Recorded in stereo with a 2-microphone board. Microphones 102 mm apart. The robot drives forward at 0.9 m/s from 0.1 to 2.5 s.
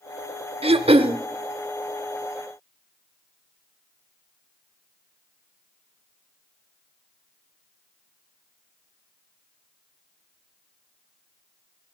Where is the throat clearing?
75° right (ahead or behind), 0.6 m; by 1.2 s 55° right (ahead or behind), 0.7 m.